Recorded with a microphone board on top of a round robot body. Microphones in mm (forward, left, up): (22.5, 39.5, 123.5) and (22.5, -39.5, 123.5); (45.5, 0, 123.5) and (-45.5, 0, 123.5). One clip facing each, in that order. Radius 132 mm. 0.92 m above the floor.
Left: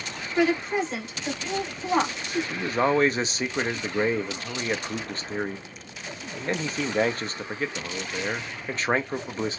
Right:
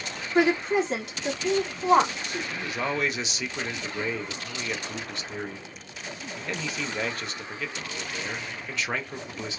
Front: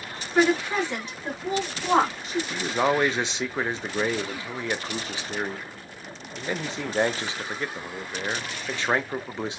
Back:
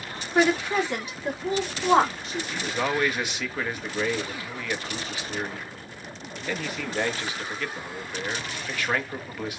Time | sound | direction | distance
0.3 | a woman speaking | 95° right | 1.4 m
2.5 | a man speaking | 55° left | 0.7 m